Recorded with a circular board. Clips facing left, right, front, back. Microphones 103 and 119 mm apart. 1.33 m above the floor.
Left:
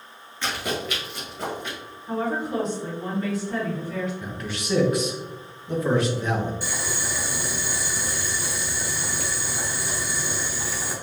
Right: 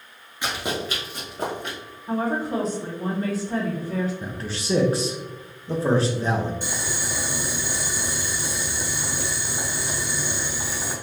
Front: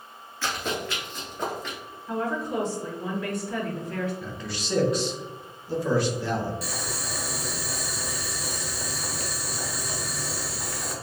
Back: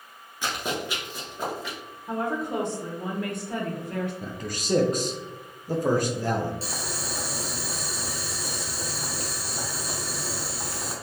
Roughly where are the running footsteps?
Behind right.